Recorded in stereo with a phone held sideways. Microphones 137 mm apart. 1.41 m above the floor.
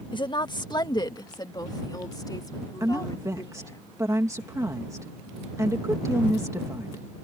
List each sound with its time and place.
0.1 s a woman speaking: 40° left (ahead or behind); by 3.8 s 30° left (ahead or behind)
2.8 s a woman speaking: 25° right (ahead or behind)